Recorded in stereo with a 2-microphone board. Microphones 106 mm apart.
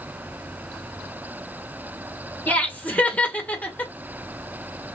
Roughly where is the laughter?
Centre.